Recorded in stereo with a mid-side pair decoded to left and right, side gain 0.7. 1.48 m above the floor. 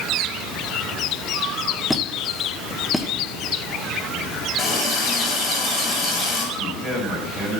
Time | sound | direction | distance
1.9 | a squeak | 5° left | 1.1 m
4.6 | a running tap | 30° left | 6 m
6.5 | a man speaking | 10° right | 7.5 m